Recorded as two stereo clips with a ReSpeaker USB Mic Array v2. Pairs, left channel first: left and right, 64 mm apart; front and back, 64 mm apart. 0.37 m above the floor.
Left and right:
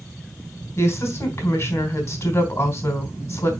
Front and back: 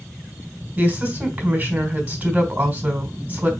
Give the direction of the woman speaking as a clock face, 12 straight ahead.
8 o'clock.